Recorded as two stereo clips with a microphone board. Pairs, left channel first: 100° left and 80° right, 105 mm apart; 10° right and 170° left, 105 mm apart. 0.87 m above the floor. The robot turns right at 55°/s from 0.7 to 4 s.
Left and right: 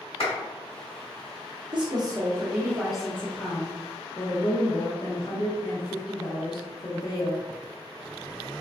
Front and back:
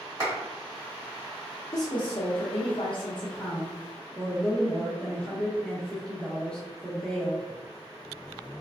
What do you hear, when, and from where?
0.2 s a clap: 115° left, 1.8 m
1.7 s a woman speaking: 55° right, 0.6 m; by 7.4 s 70° left, 0.6 m